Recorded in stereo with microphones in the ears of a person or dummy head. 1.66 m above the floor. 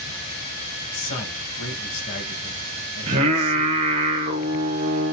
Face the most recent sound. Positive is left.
turn(degrees=-25)  # may be behind; listen again after turning